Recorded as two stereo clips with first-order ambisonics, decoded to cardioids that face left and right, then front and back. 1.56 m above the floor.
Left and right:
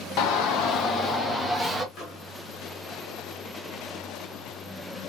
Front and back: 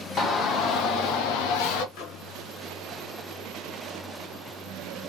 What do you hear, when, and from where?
0.2 s a shout: 65° left, 1.1 m; by 1.9 s straight ahead, 1.1 m
1.9 s a microwave: 30° left, 1.8 m